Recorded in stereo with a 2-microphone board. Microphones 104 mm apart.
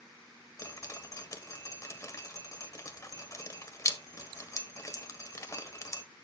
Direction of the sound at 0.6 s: 30° left (ahead or behind).